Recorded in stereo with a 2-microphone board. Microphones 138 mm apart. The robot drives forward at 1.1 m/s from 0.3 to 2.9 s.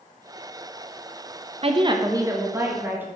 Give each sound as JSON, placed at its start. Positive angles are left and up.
{"t": 1.6, "sound": "a woman speaking", "side_deg": -45, "distance_m": 0.6}